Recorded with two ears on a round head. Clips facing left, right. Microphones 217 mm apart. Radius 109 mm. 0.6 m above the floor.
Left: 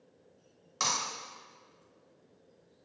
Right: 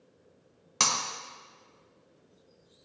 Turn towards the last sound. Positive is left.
turn(degrees=-75)  # may be behind; listen again after turning